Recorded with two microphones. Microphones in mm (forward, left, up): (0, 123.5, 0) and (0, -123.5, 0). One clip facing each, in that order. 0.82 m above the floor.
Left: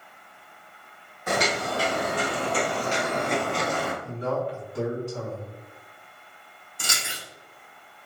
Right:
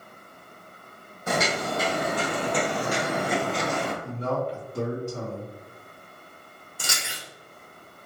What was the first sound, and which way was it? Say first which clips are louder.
Footsteps: even; 25° right (ahead or behind).